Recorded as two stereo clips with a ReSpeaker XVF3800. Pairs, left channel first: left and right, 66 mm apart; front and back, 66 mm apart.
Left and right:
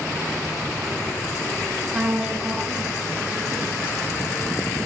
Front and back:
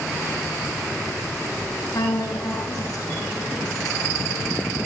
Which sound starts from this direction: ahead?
A woman speaking, at 1.9 s.